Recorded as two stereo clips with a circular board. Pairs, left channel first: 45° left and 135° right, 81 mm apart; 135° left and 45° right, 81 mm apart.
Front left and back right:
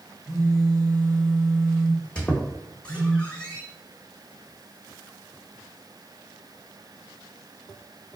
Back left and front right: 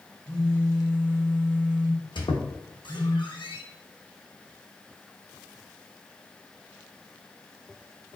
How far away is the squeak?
About 1.0 m.